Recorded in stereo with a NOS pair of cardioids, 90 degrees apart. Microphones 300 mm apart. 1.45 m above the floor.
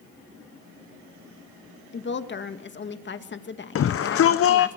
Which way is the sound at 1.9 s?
40° left.